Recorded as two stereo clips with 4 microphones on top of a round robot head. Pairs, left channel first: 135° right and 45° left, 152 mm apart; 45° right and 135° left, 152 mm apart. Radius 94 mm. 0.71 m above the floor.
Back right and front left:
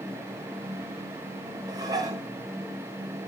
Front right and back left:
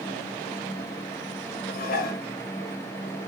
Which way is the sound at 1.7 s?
20° right.